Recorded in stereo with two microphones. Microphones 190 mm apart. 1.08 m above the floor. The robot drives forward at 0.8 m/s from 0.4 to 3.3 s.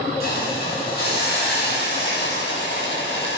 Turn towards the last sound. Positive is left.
turn(degrees=75)  # may be behind; listen again after turning